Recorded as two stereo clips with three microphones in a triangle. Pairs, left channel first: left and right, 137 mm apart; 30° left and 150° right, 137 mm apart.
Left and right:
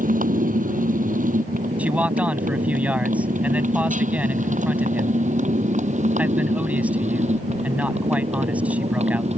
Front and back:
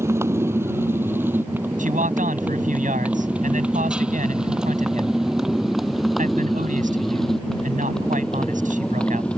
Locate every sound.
0.0 s a motorcycle: 80° right; by 9.4 s 50° right
1.8 s a man speaking: 170° right